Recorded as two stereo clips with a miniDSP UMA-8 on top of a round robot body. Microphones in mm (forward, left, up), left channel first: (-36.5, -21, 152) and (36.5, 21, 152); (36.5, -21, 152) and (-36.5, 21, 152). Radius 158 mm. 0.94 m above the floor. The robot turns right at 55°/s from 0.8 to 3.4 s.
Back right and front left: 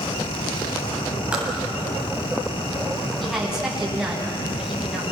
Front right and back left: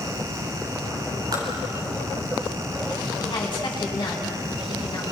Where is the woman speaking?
65° right, 10 m; by 5.0 s 55° right, 10 m.